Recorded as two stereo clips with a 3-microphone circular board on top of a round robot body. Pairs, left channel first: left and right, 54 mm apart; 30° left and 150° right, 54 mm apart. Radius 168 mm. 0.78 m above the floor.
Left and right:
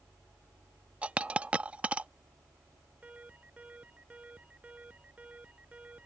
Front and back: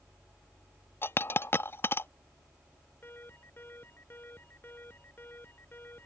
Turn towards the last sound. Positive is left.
turn(degrees=-20)